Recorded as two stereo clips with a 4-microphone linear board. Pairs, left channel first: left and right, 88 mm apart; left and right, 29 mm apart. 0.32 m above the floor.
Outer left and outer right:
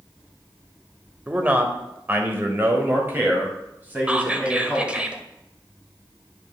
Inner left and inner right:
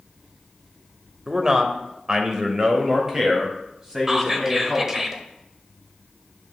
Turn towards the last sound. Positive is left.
turn(degrees=-15)  # may be behind; listen again after turning